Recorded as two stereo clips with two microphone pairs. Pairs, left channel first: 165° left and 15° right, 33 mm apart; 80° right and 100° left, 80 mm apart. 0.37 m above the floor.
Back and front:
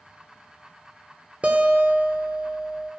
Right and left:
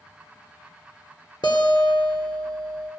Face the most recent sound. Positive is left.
turn(degrees=-65)